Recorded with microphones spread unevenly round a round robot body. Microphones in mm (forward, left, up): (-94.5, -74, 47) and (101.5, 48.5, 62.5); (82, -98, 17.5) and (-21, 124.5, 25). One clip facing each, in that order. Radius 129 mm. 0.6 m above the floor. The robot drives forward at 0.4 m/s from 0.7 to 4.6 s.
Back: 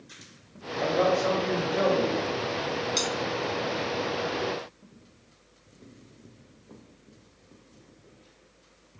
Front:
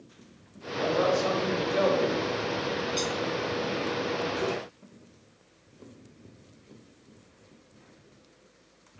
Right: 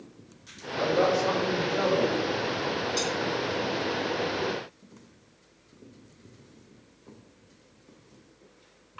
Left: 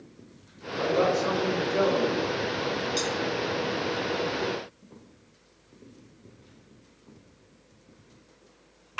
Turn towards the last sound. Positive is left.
turn(degrees=-175)